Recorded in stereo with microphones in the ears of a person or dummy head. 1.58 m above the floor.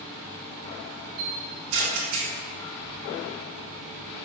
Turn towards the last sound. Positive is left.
turn(degrees=-60)  # may be behind; listen again after turning